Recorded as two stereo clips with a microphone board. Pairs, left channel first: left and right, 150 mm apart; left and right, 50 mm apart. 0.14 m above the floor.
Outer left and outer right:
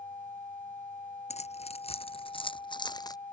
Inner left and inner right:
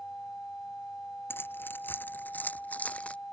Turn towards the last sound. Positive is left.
turn(degrees=25)  # may be behind; listen again after turning